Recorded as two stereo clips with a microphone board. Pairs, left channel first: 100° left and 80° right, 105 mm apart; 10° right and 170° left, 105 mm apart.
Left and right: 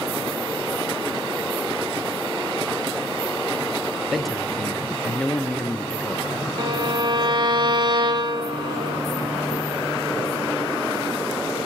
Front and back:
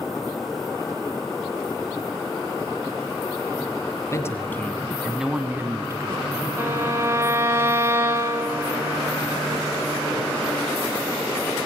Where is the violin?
125° right, 3.5 m.